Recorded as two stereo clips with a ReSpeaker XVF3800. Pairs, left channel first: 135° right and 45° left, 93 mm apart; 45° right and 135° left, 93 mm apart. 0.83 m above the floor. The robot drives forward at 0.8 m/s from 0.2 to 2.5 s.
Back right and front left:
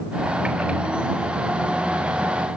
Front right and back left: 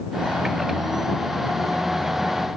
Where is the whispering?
No whispering in this recording.